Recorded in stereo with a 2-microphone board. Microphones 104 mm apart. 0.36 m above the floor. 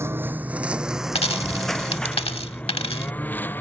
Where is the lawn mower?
25° right (ahead or behind); by 3.6 s 20° left (ahead or behind).